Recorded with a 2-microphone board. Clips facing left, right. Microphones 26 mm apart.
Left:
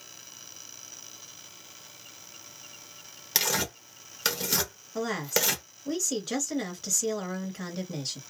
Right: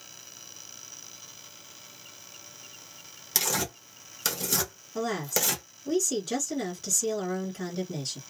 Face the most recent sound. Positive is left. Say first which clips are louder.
# left 1 dB
turn(degrees=15)  # may be behind; listen again after turning